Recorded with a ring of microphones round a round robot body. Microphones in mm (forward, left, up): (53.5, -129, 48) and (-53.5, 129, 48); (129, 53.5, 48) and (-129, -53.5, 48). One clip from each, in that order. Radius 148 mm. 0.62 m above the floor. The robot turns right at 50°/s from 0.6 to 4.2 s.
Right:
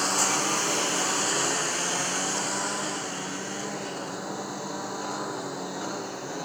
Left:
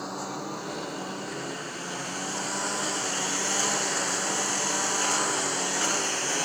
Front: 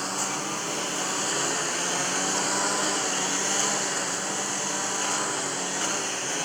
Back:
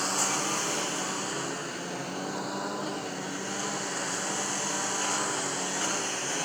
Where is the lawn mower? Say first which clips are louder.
Right 9 dB, back 1 dB; 75° right; by 6.5 s 105° left.